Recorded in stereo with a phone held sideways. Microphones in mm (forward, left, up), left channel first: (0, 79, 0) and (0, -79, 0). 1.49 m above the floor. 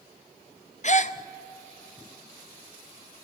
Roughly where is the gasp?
Left.